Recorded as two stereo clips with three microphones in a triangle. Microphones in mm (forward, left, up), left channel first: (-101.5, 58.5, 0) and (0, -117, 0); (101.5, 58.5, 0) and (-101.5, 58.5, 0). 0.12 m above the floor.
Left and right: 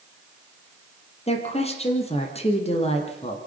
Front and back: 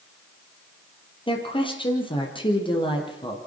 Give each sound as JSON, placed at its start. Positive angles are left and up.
{"t": 1.3, "sound": "a woman speaking", "azimuth_deg": 65, "distance_m": 4.5}